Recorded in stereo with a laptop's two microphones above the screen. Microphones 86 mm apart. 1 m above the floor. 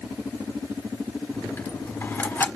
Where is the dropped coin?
25° left (ahead or behind), 1.2 m.